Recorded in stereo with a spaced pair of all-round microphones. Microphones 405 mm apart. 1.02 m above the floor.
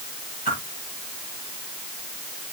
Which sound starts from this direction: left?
A whoosh, at 0.5 s.